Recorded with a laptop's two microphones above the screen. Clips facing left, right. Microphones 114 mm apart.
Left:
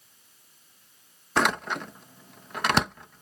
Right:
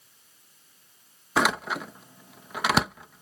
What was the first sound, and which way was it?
A door slam, 5° right (ahead or behind).